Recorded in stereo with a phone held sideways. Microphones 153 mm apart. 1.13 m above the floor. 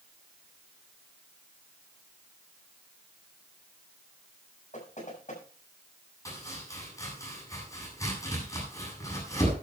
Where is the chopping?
20° left (ahead or behind), 8.5 m.